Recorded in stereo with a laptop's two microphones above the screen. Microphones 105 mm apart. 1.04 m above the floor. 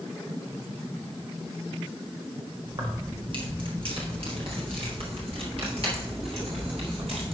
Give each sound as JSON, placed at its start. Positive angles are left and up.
{"t": 2.7, "sound": "keys jangling", "side_deg": -45, "distance_m": 1.3}